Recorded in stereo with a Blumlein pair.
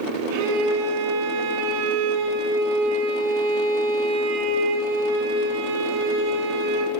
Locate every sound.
0.3 s a violin: 50° right, 6.5 m